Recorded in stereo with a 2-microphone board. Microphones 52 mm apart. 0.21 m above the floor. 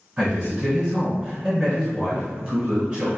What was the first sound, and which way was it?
A man speaking, 25° right (ahead or behind).